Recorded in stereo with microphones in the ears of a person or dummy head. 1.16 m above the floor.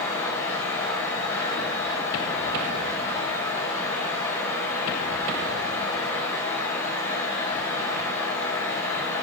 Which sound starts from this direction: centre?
A fan, at 0.0 s.